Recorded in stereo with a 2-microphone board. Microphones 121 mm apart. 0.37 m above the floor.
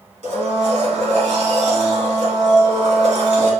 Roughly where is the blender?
Right.